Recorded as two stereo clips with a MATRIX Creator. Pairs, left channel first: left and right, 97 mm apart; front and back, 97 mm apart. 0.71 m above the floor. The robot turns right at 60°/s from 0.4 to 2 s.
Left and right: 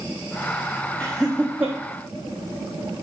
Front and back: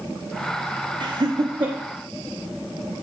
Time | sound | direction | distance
1.0 | laughter | 165° left | 1.0 m